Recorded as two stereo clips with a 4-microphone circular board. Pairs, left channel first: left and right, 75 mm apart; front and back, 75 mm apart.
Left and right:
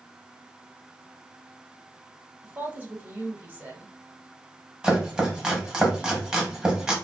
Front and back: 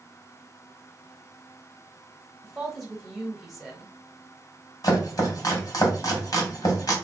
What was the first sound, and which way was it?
A woman speaking, 100° right.